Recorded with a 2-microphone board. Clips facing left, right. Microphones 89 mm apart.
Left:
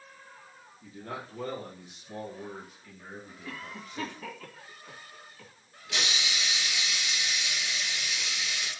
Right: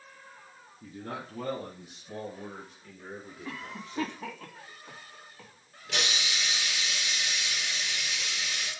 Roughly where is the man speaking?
Right.